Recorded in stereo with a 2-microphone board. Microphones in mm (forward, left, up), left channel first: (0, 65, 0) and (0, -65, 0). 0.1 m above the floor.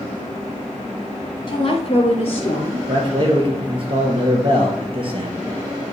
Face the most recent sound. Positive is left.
turn(degrees=-45)  # may be behind; listen again after turning